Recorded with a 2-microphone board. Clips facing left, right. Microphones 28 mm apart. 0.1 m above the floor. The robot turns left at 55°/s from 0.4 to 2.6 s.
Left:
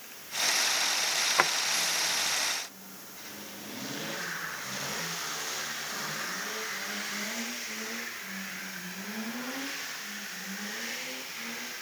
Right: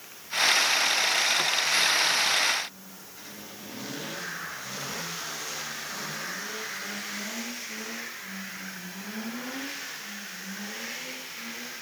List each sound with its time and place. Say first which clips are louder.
1.4 s a drawer: left 1 dB; 45° left (ahead or behind); by 1.5 s 50° left (ahead or behind)